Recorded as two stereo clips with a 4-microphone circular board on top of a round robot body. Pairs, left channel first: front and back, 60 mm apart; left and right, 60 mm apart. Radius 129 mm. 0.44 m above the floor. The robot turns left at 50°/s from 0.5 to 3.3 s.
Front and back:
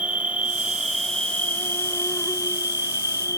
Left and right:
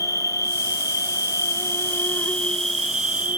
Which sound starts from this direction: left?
An insect, at 0.0 s.